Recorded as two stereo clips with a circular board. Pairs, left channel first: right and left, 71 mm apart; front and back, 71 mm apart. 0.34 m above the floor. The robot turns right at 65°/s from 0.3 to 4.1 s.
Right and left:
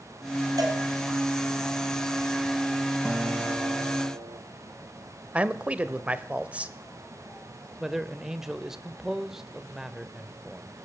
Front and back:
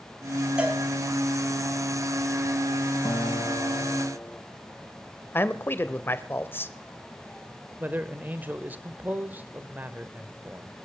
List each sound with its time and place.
0.6 s a cowbell: 105° left, 3 m; by 0.8 s 120° left, 3 m
3.0 s a guitar: 10° left, 2 m; by 4.4 s 75° left, 2 m
5.3 s a man speaking: 30° left, 1.0 m
7.8 s a man speaking: 165° left, 0.9 m